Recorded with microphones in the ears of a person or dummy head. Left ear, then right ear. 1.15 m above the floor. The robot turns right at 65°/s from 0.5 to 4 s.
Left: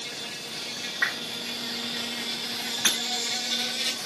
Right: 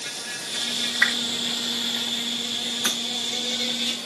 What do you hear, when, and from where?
0.0 s an insect: 115° right, 3.5 m; by 4.1 s 110° left, 3.5 m
1.0 s a whoosh: 60° right (ahead or behind), 3 m; by 1.3 s 45° right (ahead or behind), 3 m
2.9 s breaking glass: 20° left (ahead or behind), 4 m; by 3.0 s 25° left (ahead or behind), 4 m